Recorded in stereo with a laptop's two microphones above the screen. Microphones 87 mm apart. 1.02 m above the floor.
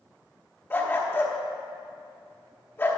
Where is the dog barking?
25° left (ahead or behind), 0.9 m.